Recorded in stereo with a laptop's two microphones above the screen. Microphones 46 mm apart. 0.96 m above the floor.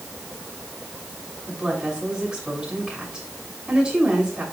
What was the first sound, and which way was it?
A woman speaking, 20° right (ahead or behind).